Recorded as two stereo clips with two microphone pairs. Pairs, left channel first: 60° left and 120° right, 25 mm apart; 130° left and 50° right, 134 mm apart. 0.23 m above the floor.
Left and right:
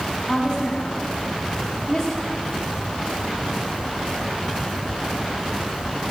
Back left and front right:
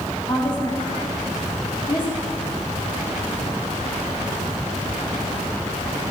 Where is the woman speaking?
120° left, 1.9 m.